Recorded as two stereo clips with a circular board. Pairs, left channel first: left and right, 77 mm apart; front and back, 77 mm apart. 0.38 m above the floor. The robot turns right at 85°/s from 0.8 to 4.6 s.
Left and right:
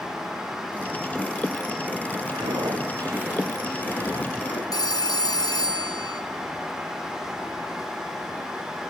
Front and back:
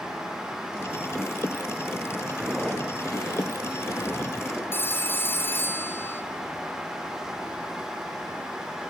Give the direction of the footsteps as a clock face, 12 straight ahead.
4 o'clock.